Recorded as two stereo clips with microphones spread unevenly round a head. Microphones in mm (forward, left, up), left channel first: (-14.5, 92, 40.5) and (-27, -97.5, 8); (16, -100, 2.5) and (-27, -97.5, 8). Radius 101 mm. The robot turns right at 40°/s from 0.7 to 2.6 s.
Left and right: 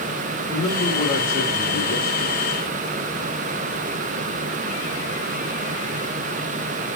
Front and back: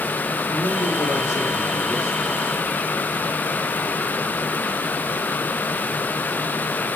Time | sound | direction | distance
0.5 | a man speaking | 20° left | 3.5 m